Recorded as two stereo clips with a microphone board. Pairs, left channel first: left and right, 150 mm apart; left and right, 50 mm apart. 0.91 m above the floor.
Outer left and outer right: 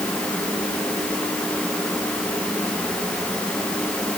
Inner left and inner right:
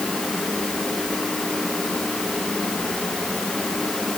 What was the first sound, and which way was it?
Only background noise.